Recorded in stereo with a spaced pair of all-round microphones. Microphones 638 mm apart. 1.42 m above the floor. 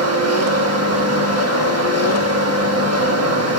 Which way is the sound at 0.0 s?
25° right (ahead or behind).